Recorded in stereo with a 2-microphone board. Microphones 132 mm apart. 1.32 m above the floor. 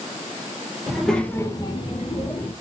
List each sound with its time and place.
0.9 s a child speaking: 5° right (ahead or behind), 1.0 m; by 2.5 s 40° left (ahead or behind), 1.3 m